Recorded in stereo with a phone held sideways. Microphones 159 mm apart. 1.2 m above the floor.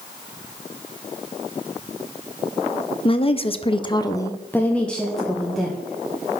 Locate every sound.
3.0 s a woman speaking: 35° left (ahead or behind), 0.6 m; by 6.4 s 5° right (ahead or behind), 1.7 m